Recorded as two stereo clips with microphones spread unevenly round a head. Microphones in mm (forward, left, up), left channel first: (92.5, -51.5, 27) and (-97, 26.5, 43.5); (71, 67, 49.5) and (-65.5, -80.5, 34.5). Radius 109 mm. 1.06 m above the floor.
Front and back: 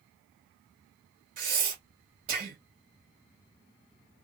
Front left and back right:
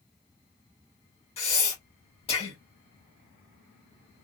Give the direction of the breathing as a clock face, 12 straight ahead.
8 o'clock.